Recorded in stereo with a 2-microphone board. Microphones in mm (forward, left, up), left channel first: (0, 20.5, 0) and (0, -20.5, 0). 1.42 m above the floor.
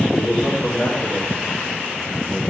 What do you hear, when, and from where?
0.1 s a man speaking: 65° left (ahead or behind), 3 m